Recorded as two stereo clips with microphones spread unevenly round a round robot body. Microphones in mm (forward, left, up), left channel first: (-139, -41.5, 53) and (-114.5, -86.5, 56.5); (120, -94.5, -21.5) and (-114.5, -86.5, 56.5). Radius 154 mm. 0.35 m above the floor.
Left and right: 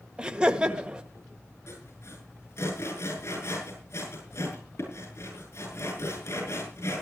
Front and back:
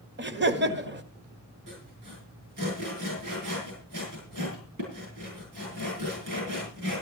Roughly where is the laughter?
Behind right.